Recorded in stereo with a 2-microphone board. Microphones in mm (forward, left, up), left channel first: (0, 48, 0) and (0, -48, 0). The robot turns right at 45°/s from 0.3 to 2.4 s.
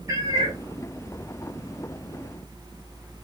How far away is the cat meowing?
About 1.1 m.